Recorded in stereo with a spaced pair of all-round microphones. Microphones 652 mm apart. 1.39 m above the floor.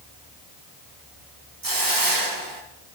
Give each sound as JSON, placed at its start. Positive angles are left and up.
{"t": 1.6, "sound": "a hiss", "side_deg": -30, "distance_m": 1.6}